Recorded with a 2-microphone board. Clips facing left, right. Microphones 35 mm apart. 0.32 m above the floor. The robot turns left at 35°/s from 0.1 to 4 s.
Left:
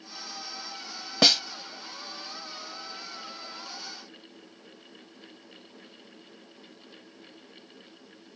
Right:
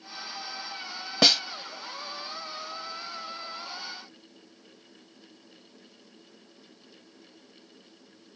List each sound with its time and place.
1.2 s a snare drum: centre (ahead or behind); by 1.4 s 5° right (ahead or behind)